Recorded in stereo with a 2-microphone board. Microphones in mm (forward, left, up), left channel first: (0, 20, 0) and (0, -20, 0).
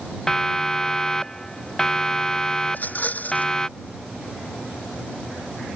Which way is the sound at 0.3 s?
15° left (ahead or behind).